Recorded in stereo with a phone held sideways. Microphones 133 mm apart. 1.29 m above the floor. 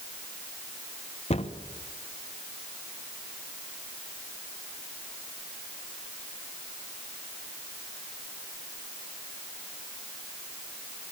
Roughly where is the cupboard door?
Left.